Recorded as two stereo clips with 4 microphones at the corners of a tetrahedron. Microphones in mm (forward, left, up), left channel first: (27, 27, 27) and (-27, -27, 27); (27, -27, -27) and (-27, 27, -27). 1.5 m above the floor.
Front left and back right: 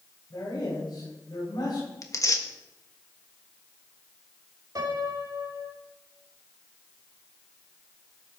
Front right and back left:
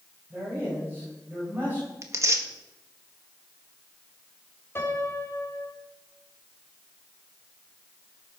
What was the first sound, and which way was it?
A man speaking, 70° left.